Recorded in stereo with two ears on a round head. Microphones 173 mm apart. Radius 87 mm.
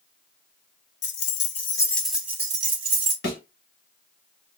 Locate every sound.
1.0 s keys jangling: 60° left (ahead or behind), 0.7 m; by 3.1 s 30° right (ahead or behind), 1.1 m
3.2 s a thud: 55° left (ahead or behind), 1.9 m